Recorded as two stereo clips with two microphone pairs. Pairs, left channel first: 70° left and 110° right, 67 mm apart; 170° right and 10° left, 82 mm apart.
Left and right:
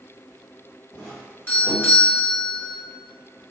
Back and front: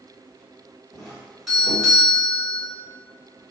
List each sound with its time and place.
0.9 s a doorbell: 100° left, 1.6 m